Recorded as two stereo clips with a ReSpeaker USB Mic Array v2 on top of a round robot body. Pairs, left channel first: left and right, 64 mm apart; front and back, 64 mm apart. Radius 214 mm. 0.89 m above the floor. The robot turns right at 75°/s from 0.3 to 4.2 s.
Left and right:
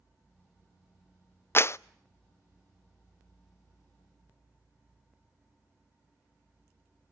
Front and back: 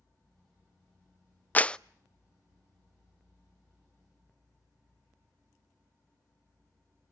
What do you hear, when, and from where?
1.6 s a clap: 55° left, 0.5 m; by 1.8 s 75° left, 0.5 m